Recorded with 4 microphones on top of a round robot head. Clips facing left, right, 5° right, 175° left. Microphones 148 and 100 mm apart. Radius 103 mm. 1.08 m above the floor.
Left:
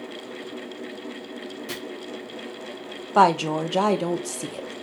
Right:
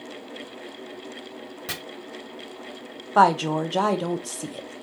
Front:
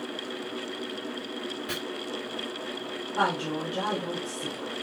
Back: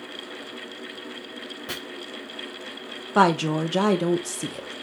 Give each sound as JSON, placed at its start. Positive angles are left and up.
{"t": 1.7, "sound": "chopping", "azimuth_deg": -115, "distance_m": 1.4}
{"t": 3.1, "sound": "a woman speaking", "azimuth_deg": 170, "distance_m": 0.6}